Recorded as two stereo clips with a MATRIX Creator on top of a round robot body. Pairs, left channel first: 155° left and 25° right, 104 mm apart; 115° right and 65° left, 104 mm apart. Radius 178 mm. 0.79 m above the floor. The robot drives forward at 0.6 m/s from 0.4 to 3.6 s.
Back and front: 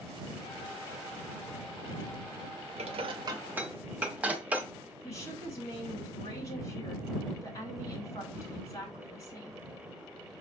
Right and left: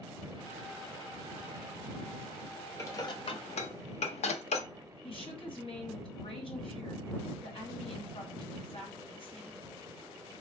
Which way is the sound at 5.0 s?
150° right.